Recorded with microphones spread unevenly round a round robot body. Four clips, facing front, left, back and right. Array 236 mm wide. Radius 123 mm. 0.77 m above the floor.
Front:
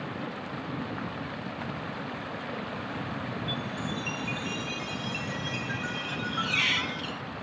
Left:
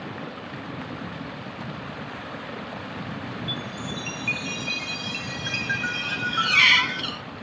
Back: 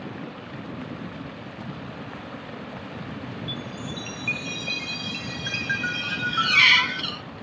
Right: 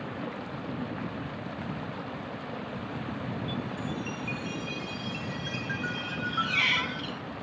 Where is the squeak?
135° left.